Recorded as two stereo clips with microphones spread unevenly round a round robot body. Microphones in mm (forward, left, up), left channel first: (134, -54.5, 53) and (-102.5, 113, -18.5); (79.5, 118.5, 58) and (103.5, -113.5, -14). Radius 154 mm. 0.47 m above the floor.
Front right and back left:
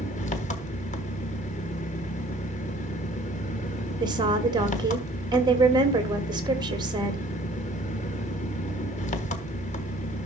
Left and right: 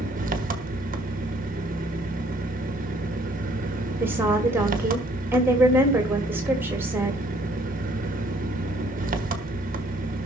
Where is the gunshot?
No gunshot in this recording.